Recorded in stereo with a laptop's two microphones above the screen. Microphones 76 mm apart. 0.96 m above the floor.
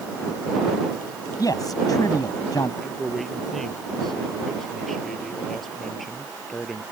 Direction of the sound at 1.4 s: 55° left (ahead or behind).